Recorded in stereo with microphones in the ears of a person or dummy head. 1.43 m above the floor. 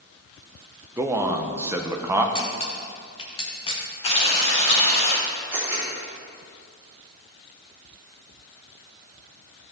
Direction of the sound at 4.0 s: 35° left (ahead or behind).